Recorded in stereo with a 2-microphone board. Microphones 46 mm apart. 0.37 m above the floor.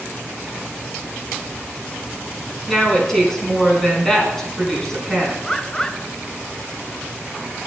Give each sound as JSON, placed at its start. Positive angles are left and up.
{"t": 2.7, "sound": "a woman speaking", "side_deg": 10, "distance_m": 4.0}
{"t": 5.4, "sound": "a bird", "side_deg": 15, "distance_m": 0.6}